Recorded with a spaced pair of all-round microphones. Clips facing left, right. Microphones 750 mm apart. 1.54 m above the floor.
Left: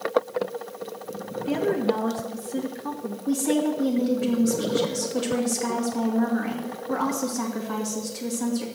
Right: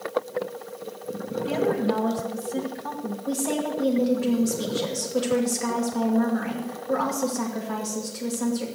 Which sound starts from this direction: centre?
A woman speaking, at 3.3 s.